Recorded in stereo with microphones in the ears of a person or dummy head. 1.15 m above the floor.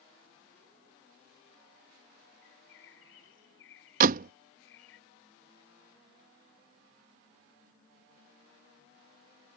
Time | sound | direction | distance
2.4 | a bird | 70° left (ahead or behind) | ?
4.0 | a door slam | 50° right (ahead or behind) | ?